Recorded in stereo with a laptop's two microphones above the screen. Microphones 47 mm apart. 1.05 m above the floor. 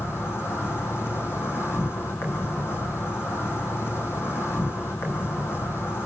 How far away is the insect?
About 4.5 m.